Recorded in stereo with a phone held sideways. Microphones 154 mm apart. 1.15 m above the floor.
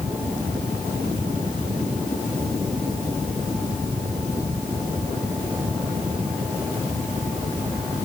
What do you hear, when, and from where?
0.0 s a fan: 35° right (ahead or behind)